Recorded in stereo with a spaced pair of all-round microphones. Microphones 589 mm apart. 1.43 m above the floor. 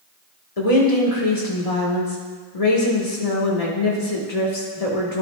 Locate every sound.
0.6 s a woman speaking: 75° left (ahead or behind), 1.3 m